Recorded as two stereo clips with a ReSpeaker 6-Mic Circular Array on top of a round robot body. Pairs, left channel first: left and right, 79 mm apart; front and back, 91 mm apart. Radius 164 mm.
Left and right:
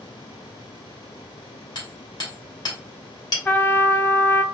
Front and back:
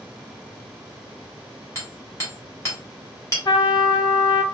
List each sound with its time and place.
1.8 s hammering: 60° left, 2.5 m
3.5 s a trumpet: 30° left, 1.4 m